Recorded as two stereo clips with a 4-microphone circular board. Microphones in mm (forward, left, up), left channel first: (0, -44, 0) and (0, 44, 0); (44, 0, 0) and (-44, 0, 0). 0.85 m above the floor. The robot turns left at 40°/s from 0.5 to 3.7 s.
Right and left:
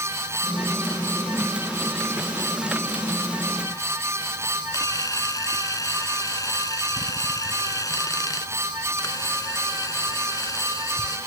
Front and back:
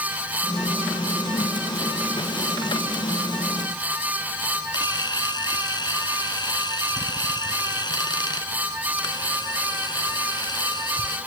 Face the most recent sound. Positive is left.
turn(degrees=-40)